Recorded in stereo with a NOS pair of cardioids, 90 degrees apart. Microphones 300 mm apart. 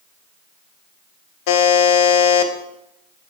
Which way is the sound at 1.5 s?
65° left.